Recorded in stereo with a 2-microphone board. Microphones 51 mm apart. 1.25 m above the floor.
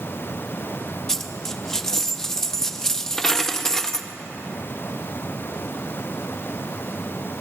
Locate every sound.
1.1 s a dropped coin: 10° left (ahead or behind), 0.6 m